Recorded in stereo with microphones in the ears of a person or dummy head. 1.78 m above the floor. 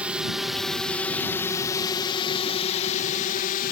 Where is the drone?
5° right (ahead or behind); by 3.7 s 50° left (ahead or behind).